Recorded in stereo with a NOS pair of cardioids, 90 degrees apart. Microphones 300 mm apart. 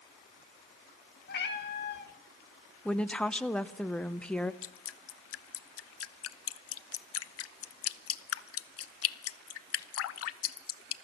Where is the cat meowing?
35° left, 1.6 m.